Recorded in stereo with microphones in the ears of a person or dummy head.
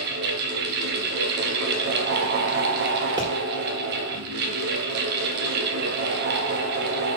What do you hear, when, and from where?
0.0 s a fan: 55° right (ahead or behind), 1.0 m
3.2 s a pop: 25° right (ahead or behind), 2.0 m